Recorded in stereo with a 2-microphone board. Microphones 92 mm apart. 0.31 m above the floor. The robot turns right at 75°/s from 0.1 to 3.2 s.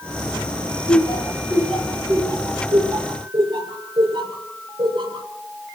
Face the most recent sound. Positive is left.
turn(degrees=-65)  # may be behind; listen again after turning